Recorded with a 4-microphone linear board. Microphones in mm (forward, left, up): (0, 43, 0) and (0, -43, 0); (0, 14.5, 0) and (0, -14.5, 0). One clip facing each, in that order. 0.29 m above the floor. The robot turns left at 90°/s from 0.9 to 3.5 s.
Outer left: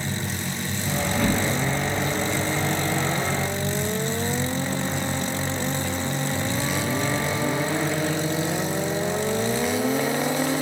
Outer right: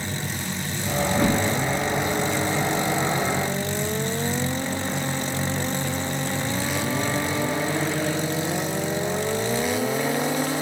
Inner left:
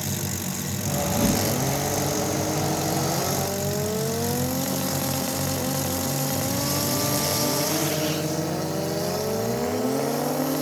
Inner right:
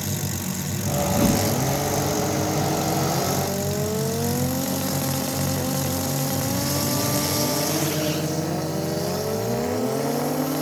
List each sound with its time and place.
1.1 s a whoosh: 150° right, 1.0 m; by 1.5 s 175° left, 1.0 m